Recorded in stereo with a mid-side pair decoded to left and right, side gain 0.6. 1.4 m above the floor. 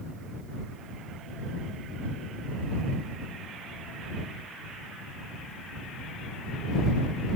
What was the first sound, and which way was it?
Only background noise.